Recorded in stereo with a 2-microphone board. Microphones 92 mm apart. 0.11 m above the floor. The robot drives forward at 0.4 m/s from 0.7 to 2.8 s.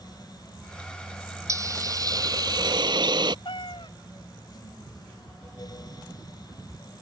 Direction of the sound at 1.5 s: 35° right (ahead or behind).